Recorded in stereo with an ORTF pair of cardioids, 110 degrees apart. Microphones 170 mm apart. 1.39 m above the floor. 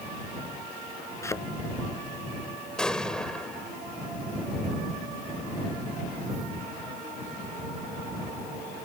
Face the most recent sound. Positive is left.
turn(degrees=5)